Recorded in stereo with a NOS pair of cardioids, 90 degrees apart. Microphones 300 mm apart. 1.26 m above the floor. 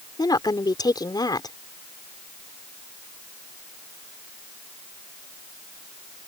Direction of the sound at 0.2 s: 10° left.